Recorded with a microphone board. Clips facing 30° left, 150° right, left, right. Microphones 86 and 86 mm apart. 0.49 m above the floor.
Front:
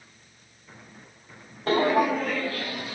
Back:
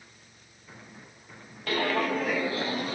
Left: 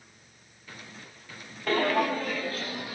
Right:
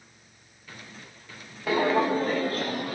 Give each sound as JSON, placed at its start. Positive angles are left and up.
{"t": 1.7, "sound": "footsteps", "azimuth_deg": -10, "distance_m": 0.6}